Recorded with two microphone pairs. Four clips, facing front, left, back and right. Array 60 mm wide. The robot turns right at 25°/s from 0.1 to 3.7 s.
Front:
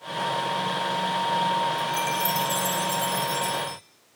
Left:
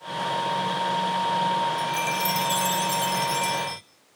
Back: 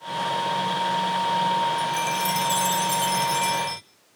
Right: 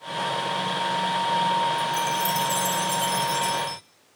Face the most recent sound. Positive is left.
turn(degrees=165)